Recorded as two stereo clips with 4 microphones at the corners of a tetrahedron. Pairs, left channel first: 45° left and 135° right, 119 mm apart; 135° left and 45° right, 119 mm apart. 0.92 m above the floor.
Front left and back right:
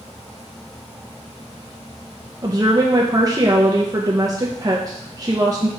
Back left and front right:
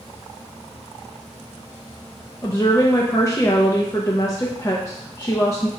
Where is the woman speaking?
Straight behind, 0.6 m.